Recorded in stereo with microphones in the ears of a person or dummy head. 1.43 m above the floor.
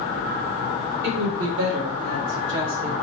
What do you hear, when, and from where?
1.0 s a woman speaking: 75° right (ahead or behind), 1.7 m; by 2.9 s 25° right (ahead or behind), 0.6 m